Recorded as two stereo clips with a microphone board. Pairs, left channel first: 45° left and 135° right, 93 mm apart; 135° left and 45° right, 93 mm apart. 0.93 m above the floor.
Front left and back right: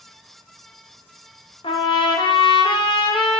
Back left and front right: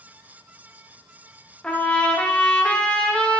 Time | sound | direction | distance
1.6 | a trumpet | 55° left | 0.7 m